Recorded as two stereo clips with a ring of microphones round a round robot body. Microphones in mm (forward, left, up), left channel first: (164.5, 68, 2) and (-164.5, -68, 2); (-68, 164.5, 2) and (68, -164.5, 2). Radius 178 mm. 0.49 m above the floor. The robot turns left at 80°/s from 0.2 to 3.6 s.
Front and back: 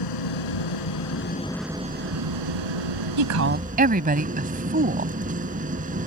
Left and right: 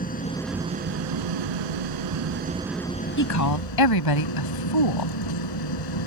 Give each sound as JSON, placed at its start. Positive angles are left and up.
{"t": 0.0, "sound": "an engine running", "azimuth_deg": 45}
{"t": 3.2, "sound": "a woman speaking", "azimuth_deg": 170}